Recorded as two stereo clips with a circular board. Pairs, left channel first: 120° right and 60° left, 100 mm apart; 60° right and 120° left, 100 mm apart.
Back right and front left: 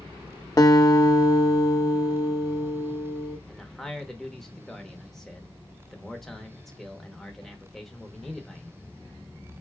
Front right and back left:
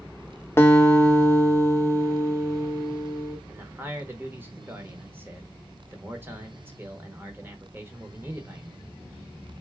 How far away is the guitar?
About 0.6 m.